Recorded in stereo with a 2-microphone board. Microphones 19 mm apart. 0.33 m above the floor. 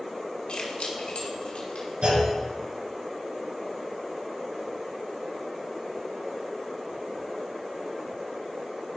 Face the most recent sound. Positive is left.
turn(degrees=-75)  # may be behind; listen again after turning